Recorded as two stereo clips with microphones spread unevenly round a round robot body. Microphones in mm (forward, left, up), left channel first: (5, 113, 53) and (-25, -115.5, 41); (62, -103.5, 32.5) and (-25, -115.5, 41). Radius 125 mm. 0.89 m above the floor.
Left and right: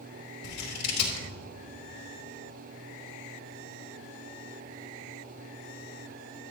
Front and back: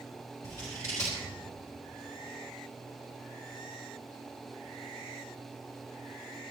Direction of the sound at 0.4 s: 80° left.